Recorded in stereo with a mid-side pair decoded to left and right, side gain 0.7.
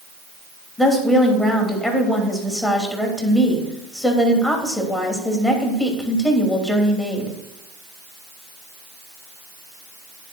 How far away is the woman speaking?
About 3 m.